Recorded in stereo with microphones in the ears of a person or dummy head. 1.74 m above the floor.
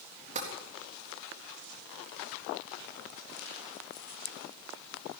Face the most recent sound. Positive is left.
turn(degrees=-35)  # may be behind; listen again after turning